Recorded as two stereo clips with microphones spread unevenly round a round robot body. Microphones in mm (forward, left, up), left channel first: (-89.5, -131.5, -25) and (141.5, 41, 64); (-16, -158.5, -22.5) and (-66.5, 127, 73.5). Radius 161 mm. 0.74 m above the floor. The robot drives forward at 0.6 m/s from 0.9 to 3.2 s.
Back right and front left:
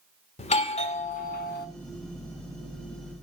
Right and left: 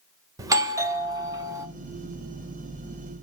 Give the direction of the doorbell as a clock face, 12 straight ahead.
5 o'clock.